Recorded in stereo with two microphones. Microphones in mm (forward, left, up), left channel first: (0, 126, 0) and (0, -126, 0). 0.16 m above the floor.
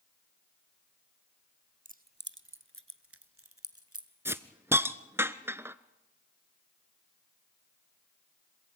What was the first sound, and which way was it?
Keys jangling, 30° right (ahead or behind).